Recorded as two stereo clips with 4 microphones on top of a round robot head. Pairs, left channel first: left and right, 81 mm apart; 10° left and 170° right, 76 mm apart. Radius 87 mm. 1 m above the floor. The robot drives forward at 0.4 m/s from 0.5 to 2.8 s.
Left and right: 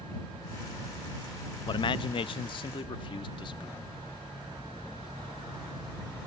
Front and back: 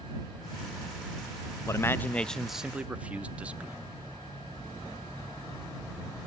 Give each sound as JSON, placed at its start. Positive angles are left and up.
{"t": 1.7, "sound": "a man speaking", "azimuth_deg": 60, "distance_m": 0.5}